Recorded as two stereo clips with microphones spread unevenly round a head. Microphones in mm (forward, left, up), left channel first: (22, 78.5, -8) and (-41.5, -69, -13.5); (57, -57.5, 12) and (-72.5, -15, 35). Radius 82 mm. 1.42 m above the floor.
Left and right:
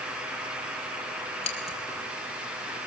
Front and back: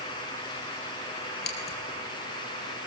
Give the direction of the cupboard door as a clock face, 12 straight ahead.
I don't hear a cupboard door.